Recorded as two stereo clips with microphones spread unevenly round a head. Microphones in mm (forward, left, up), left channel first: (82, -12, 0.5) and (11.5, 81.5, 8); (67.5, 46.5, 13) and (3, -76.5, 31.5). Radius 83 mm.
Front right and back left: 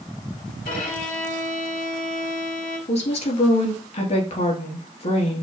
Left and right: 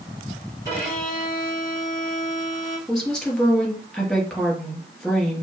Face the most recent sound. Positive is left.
turn(degrees=-25)